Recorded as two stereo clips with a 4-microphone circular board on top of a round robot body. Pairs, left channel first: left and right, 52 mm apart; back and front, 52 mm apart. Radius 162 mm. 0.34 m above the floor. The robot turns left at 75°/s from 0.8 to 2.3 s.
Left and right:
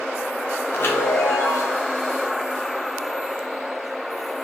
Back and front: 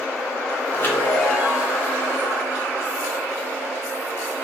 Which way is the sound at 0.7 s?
135° left.